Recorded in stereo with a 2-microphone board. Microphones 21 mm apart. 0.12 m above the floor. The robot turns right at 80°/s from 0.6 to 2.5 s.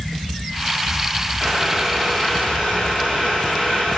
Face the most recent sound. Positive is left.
turn(degrees=65)